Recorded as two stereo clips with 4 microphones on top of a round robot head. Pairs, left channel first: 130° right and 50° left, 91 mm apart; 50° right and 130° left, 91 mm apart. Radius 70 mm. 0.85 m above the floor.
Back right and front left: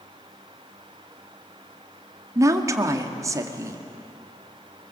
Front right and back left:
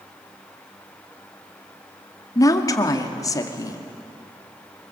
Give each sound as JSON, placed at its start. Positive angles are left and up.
{"t": 2.4, "sound": "a woman speaking", "azimuth_deg": -5, "distance_m": 2.0}